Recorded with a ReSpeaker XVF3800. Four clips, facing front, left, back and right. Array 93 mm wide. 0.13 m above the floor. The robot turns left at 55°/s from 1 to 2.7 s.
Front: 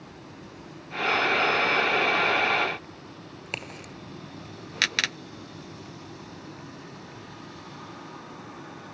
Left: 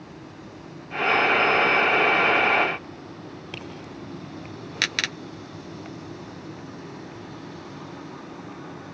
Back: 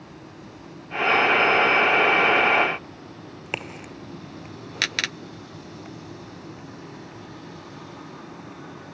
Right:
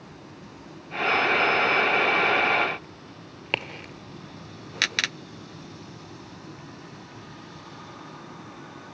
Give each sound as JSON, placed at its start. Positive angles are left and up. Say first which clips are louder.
{"t": 3.5, "sound": "a crack", "louder": "right 10 dB, back 5 dB", "azimuth_deg": -120, "distance_m": 1.5}